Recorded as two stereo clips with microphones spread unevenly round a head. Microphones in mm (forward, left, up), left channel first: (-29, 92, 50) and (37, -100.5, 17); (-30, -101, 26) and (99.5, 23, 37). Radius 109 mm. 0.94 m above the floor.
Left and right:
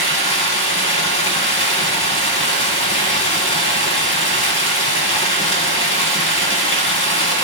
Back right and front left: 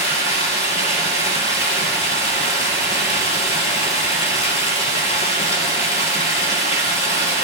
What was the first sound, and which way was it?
Running water, 160° left.